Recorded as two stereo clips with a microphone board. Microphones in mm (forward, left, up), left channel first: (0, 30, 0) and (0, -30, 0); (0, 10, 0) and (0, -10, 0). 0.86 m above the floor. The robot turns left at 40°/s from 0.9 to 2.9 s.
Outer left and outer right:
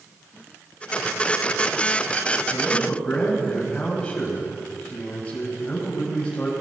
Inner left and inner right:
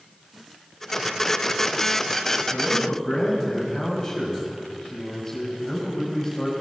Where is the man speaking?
35° left (ahead or behind), 5.5 m; by 6.5 s 15° left (ahead or behind), 5.5 m.